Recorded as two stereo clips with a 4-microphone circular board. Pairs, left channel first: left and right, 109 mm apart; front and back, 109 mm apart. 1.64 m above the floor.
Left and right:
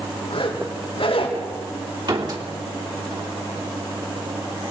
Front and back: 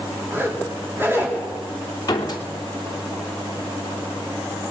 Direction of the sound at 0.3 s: 110° left.